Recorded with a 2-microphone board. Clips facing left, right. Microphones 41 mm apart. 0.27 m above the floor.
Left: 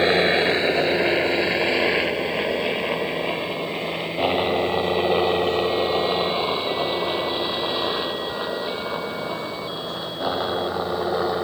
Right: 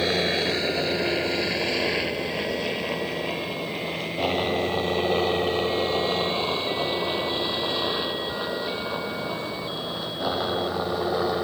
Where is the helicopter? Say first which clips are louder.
Left 6 dB; 30° left (ahead or behind); by 11.4 s 5° left (ahead or behind).